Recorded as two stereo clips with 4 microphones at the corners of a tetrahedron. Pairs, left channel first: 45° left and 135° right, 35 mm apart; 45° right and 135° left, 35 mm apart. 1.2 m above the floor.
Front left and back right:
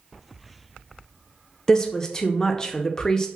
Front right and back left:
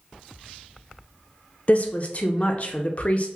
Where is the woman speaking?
20° right, 0.6 m.